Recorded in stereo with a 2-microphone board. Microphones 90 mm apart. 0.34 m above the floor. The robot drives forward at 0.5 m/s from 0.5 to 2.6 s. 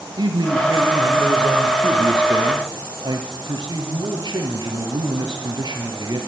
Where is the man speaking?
55° right (ahead or behind), 4.5 m; by 6.2 s 45° right (ahead or behind), 5.5 m.